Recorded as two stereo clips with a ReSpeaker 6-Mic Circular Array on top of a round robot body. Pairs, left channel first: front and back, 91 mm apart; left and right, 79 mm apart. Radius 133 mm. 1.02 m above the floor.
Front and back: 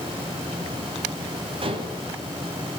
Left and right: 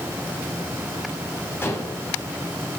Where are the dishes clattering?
150° left, 4.5 m.